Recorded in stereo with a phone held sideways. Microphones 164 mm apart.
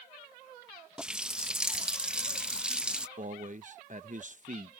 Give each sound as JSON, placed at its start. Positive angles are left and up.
{"t": 1.0, "sound": "a running tap", "side_deg": -5}
{"t": 3.2, "sound": "a man speaking", "side_deg": -50}